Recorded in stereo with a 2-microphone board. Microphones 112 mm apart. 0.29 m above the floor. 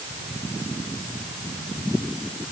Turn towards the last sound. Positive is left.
No sound to turn to.